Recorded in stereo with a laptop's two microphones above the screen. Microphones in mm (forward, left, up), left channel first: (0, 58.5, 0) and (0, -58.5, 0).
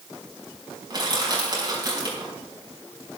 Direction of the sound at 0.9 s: 35° right (ahead or behind).